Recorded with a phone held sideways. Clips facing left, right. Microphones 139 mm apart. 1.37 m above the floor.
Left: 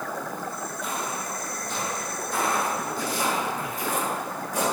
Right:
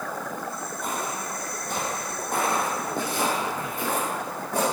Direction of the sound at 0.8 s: 45° right (ahead or behind).